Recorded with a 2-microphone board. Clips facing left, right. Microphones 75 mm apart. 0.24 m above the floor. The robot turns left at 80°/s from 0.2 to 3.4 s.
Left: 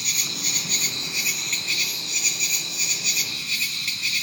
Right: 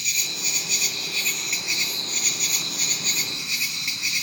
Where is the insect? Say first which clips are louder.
Even; 100° left, 0.9 m; by 4.2 s 160° right, 0.9 m.